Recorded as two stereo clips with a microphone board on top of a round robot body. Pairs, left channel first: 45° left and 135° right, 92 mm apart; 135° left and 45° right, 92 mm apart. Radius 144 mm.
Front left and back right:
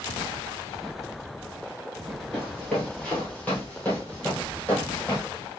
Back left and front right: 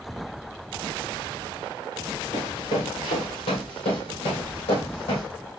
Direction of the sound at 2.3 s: 130° left.